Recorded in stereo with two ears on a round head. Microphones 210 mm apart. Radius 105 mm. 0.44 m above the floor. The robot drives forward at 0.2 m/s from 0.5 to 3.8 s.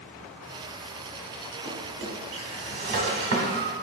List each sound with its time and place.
1.6 s a drawer: 45° right (ahead or behind), 1.0 m; by 3.7 s 55° right (ahead or behind), 0.9 m